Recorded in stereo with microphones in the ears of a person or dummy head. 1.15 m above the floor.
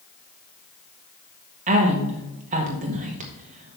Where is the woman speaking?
35° right (ahead or behind), 1.7 m.